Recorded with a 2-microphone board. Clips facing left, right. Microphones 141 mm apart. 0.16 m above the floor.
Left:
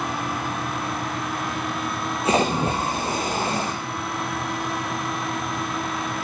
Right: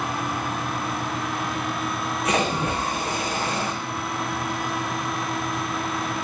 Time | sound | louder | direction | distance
2.2 | a splash | left 3 dB | 30° left (ahead or behind) | 3 m